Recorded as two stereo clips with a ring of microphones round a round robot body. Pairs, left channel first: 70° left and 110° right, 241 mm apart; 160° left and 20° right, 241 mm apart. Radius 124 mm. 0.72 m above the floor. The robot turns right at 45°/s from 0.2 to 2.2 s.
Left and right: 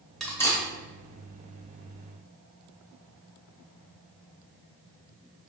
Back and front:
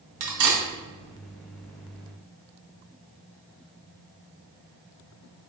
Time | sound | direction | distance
0.2 | cutlery clinking | 20° right | 0.9 m